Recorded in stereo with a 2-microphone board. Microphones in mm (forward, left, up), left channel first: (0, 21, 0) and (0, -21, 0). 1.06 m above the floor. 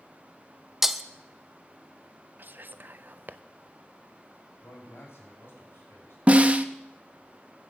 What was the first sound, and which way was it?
Breaking glass, 10° right (ahead or behind).